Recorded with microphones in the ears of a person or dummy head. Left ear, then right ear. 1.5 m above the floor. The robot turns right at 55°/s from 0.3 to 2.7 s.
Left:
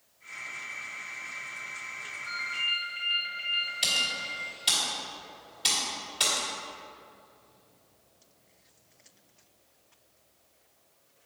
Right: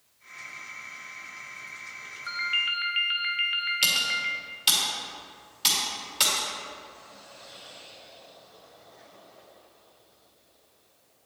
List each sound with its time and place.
2.3 s a ringtone: 35° right (ahead or behind), 0.7 m; by 4.3 s 50° right (ahead or behind), 0.7 m
3.8 s typing on a keyboard: 20° right (ahead or behind), 1.9 m